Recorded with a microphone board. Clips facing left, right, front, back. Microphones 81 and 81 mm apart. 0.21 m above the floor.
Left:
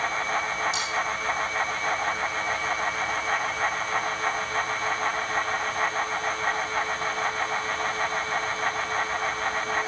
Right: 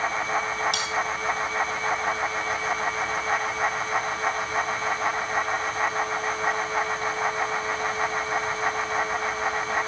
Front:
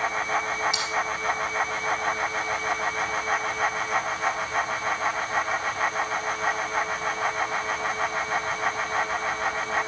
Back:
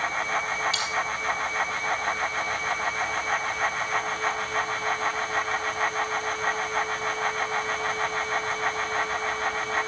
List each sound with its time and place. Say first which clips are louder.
0.7 s cutlery clinking: right 1 dB, even; 75° right, 3.5 m